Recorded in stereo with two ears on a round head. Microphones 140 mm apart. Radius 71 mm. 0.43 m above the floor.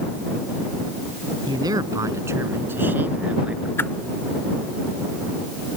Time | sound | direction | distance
1.5 | a man speaking | 25° right (ahead or behind) | ?
3.8 | a whoosh | 15° left (ahead or behind) | ?